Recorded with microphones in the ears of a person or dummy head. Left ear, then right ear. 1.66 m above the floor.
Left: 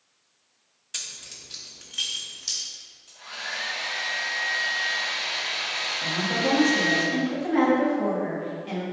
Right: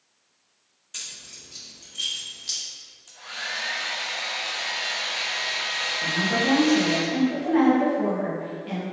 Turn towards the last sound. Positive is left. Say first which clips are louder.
# right 2 dB
turn(degrees=0)  # may be behind; listen again after turning